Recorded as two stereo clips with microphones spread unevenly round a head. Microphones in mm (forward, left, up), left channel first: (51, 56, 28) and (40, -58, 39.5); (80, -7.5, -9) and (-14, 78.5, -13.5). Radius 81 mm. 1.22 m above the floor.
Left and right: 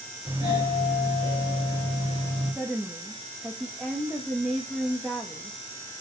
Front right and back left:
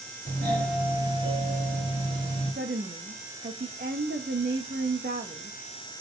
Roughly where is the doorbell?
Behind.